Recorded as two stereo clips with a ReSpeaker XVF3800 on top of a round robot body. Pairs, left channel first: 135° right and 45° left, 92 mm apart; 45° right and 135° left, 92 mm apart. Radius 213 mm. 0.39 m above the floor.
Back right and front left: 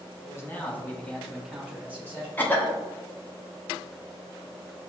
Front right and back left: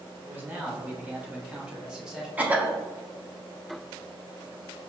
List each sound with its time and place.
0.2 s a man speaking: 170° right, 1.5 m; by 2.3 s 55° left, 1.4 m
2.4 s a cough: 175° right, 1.3 m